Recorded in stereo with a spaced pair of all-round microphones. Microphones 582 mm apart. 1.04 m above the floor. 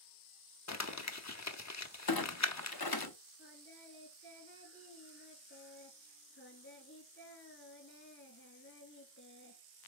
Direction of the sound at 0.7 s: 30° left (ahead or behind).